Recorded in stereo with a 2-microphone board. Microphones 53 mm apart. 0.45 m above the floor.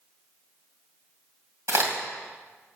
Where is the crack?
50° right (ahead or behind), 2.5 m.